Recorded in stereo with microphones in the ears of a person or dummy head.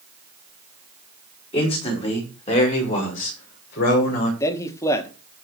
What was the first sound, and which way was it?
A man speaking, 30° left (ahead or behind).